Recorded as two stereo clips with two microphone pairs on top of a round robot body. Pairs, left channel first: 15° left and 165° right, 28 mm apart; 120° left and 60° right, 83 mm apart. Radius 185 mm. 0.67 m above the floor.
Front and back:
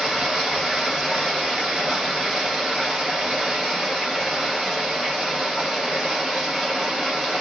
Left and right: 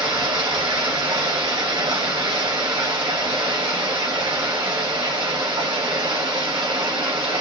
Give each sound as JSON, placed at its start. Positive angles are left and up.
{"t": 0.0, "sound": "running water", "azimuth_deg": -85, "distance_m": 0.8}